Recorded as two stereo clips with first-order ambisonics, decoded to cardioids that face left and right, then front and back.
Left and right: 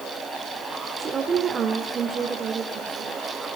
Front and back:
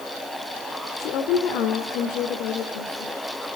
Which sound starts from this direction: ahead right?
A woman speaking, at 1.0 s.